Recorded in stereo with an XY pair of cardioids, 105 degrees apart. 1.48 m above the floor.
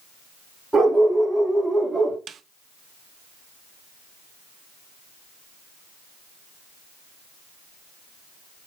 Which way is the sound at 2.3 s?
50° right.